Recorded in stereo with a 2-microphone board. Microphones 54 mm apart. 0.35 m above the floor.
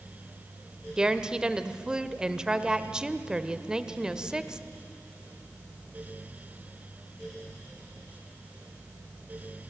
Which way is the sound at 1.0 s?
15° right (ahead or behind).